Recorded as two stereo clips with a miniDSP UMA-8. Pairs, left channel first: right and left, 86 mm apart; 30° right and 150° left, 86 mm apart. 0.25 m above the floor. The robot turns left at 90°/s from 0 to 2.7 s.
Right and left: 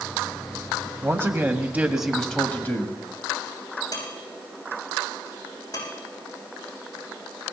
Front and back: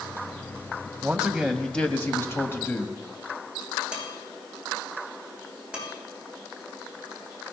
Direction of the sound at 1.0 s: 100° left.